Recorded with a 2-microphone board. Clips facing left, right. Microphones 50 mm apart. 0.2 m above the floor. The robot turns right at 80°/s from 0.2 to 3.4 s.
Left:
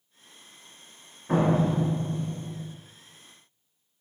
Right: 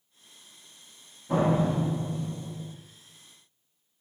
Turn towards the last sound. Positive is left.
turn(degrees=-90)